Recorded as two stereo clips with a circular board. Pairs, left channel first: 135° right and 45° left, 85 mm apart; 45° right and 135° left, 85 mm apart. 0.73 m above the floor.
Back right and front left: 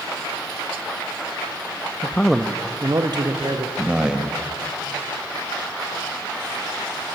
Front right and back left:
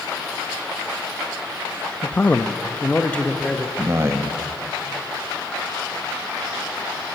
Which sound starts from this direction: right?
A man speaking, at 2.0 s.